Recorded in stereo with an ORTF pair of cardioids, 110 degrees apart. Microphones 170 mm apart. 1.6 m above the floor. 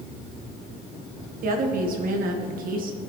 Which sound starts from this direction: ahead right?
A woman speaking, at 1.4 s.